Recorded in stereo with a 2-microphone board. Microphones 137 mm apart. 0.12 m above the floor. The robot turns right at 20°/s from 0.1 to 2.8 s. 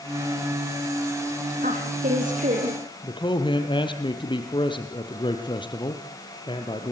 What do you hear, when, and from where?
1.6 s a woman speaking: 80° right, 6.5 m; by 2.8 s 60° right (ahead or behind), 6.5 m
3.0 s a man speaking: 35° left (ahead or behind), 3 m